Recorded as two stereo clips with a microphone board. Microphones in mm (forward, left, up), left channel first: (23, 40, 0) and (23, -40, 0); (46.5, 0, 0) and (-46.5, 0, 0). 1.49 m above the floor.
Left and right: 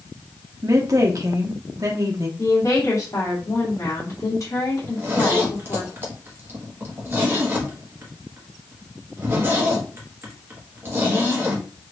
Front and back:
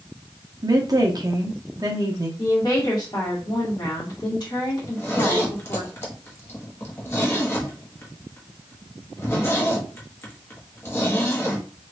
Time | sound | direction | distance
0.6 | a woman speaking | 135° right | 0.9 m
2.4 | a woman speaking | 45° left | 1.7 m
4.8 | a zipper | 50° right | 1.0 m